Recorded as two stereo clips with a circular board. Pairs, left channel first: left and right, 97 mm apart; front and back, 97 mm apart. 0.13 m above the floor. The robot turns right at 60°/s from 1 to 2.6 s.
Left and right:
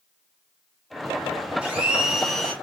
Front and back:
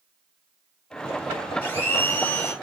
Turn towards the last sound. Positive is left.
turn(degrees=20)